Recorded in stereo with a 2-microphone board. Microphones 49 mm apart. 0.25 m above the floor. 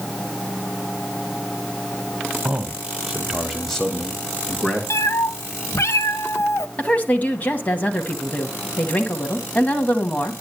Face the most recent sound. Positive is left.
turn(degrees=30)  # may be behind; listen again after turning